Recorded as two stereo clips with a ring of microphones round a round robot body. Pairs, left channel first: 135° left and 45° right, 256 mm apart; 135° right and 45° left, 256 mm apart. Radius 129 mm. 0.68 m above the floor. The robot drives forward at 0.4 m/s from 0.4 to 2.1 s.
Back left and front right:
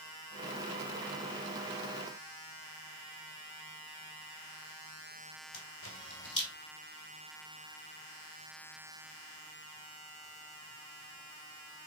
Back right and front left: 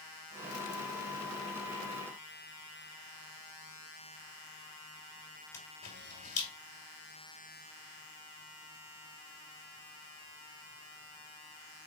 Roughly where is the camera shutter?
Behind.